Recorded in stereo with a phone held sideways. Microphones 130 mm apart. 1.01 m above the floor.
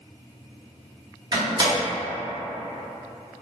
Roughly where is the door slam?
Right.